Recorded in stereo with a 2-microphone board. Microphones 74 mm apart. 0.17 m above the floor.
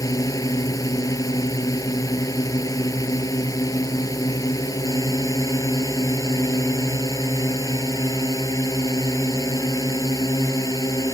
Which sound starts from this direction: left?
A drone, at 0.0 s.